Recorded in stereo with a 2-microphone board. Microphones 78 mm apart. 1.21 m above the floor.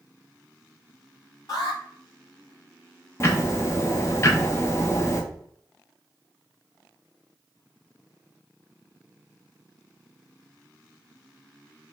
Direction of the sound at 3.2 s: 35° left (ahead or behind).